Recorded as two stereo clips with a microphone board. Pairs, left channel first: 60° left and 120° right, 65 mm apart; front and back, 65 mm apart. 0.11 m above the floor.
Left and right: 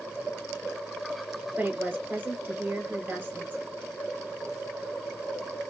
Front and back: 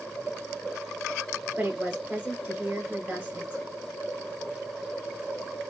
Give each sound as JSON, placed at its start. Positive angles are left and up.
{"t": 1.6, "sound": "a woman speaking", "azimuth_deg": -140, "distance_m": 1.2}